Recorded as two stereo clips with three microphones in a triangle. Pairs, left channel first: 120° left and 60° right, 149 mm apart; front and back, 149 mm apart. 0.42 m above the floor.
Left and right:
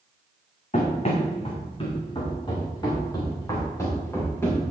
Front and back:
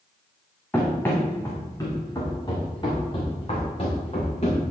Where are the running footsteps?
80° left, 2 m; by 4.6 s 45° left, 4 m.